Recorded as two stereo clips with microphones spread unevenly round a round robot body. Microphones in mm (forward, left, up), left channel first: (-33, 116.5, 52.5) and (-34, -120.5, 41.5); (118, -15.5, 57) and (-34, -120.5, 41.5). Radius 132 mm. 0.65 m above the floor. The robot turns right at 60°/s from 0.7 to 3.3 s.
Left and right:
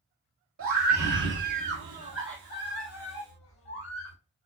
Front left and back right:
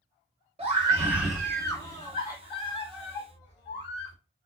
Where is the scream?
95° right, 1.6 m; by 4.2 s 65° left, 1.6 m.